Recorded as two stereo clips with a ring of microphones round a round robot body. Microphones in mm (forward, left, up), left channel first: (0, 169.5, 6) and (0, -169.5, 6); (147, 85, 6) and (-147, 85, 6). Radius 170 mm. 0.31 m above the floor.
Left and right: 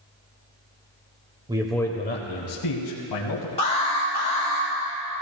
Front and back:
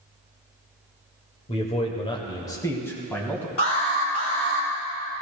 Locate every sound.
1.5 s a man speaking: 35° right, 0.9 m; by 3.5 s 85° left, 2 m
3.6 s an alarm: 20° left, 4 m